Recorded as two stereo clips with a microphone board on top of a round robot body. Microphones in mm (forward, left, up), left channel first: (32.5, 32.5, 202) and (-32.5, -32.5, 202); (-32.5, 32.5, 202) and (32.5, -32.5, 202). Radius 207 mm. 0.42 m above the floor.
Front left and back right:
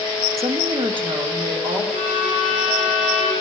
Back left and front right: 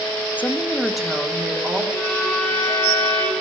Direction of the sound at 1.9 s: 150° right.